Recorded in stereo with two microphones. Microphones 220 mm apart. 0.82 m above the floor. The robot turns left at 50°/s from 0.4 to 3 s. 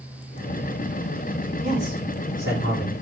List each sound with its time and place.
1.6 s a man speaking: 25° right, 8 m; by 2.9 s 90° right, 8 m